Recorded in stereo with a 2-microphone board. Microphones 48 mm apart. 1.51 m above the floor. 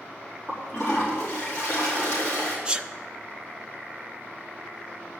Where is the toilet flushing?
20° left (ahead or behind), 4 m.